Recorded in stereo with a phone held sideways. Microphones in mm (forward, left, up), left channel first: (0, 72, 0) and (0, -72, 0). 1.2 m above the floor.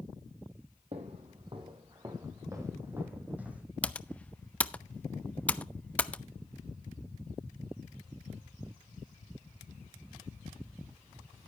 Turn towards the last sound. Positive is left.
turn(degrees=10)  # may be behind; listen again after turning